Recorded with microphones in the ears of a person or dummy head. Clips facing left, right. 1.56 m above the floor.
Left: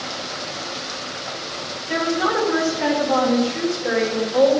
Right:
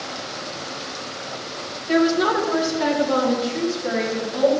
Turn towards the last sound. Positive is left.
turn(degrees=-50)  # may be behind; listen again after turning